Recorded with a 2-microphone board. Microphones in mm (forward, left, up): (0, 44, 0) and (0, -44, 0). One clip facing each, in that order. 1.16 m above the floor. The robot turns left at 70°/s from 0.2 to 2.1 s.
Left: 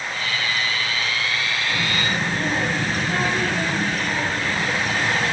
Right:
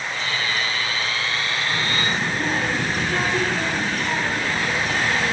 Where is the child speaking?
5° left (ahead or behind), 2.5 m; by 5.3 s 25° right (ahead or behind), 2.5 m.